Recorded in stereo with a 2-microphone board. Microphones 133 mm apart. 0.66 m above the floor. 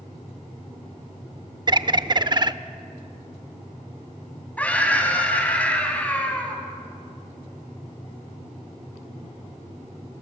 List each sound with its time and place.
1.7 s a bird: 35° right (ahead or behind), 0.6 m
4.6 s a scream: 10° left (ahead or behind), 4.5 m